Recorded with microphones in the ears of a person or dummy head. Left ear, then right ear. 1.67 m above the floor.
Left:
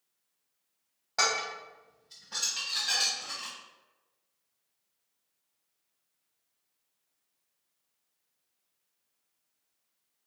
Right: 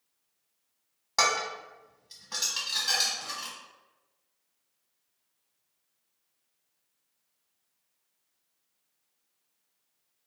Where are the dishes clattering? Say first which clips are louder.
Right 2 dB; 5° right (ahead or behind), 1.4 m.